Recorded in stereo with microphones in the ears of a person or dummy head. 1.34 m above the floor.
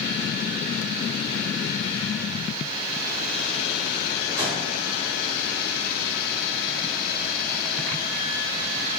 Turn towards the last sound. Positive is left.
turn(degrees=-15)  # may be behind; listen again after turning